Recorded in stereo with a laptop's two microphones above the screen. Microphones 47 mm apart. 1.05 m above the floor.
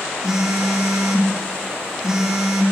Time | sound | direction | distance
0.2 | a phone buzzing | 15° right (ahead or behind) | 0.5 m